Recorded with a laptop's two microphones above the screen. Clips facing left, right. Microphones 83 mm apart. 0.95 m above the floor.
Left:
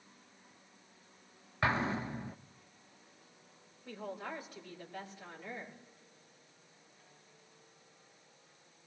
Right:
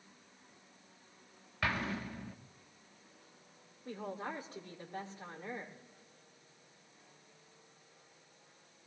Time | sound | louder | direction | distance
1.6 | an explosion | left 4 dB | 25° left (ahead or behind) | 0.5 m
3.9 | a woman speaking | right 1 dB | 35° right (ahead or behind) | 3.5 m